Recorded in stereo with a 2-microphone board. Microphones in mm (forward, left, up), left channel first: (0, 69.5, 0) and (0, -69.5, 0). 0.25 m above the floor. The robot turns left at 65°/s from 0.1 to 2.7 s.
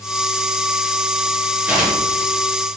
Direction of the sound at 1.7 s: 10° right (ahead or behind).